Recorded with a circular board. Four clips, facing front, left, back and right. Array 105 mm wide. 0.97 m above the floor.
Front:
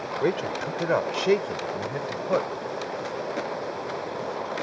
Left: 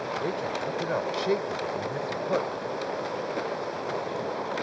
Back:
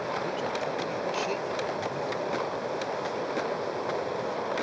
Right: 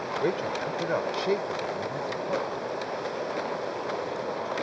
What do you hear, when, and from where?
0.2 s a man speaking: 20° right; by 2.5 s 15° left